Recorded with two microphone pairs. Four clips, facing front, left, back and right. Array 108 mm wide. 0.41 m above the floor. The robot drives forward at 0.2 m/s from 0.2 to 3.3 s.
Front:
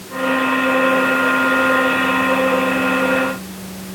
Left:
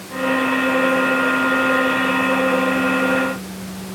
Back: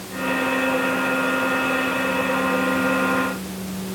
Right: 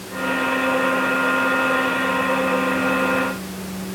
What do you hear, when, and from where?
Only background noise.